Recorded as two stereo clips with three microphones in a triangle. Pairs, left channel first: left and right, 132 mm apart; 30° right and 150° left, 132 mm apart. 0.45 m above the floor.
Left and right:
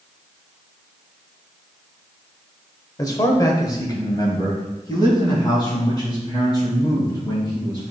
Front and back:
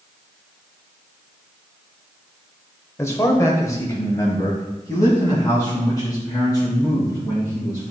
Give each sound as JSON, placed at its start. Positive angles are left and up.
{"t": 3.0, "sound": "a man speaking", "azimuth_deg": 35, "distance_m": 1.2}